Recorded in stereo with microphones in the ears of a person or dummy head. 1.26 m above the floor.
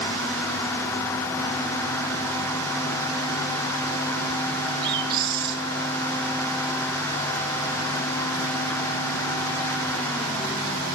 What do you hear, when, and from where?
4.8 s a bird: 25° right (ahead or behind), 9.5 m